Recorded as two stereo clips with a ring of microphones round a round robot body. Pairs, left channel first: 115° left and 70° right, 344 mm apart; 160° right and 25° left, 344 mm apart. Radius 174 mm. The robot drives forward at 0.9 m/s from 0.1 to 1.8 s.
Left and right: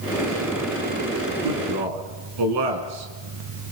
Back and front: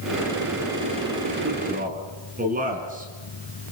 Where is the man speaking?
40° right, 5 m; by 3.7 s 45° right, 5 m.